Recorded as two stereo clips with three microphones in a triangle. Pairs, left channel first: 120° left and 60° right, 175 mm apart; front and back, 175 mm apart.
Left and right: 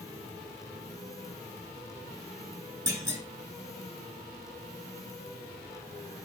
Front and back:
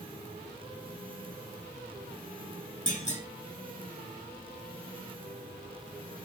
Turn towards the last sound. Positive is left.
turn(degrees=5)